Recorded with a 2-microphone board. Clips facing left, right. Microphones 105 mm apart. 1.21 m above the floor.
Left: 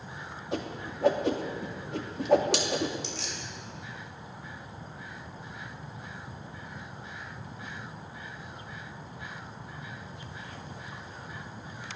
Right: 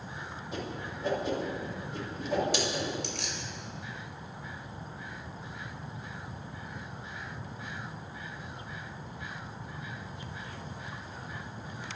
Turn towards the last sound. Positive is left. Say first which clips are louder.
# even
turn(degrees=-60)  # may be behind; listen again after turning